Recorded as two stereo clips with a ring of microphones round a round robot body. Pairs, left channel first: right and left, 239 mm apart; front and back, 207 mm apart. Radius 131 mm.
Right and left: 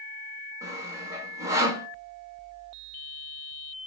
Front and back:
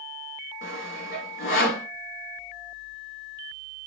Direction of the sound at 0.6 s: 15° left.